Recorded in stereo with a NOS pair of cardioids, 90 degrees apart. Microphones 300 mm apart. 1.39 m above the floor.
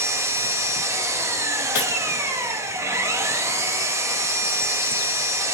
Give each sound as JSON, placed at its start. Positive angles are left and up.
{"t": 0.0, "sound": "an engine running", "azimuth_deg": -10, "distance_m": 1.5}
{"t": 1.8, "sound": "breaking glass", "azimuth_deg": 50, "distance_m": 4.0}